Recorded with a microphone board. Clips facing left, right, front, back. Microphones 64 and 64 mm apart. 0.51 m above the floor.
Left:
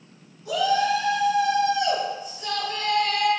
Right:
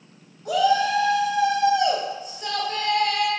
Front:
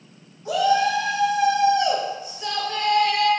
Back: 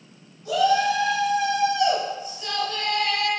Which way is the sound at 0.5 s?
60° right.